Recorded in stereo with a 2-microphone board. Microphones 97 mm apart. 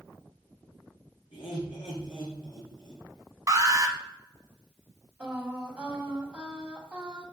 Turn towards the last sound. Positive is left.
turn(degrees=-10)  # may be behind; listen again after turning